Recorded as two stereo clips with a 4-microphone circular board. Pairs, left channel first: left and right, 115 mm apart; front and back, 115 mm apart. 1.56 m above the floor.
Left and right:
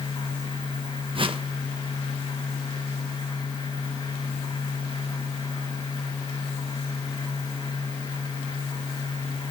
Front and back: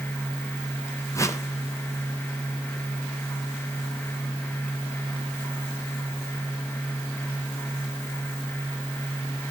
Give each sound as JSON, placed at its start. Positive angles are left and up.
{"t": 1.1, "sound": "a whoosh", "azimuth_deg": -60, "distance_m": 1.0}